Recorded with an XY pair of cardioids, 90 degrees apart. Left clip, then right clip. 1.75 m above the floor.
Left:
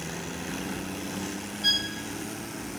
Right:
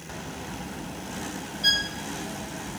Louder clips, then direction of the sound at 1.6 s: Right 2 dB; 50° right.